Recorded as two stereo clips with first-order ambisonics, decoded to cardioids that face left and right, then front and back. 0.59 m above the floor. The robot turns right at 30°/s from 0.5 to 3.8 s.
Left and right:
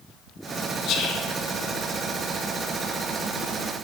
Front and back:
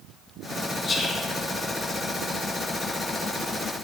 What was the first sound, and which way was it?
Whispering, 65° left.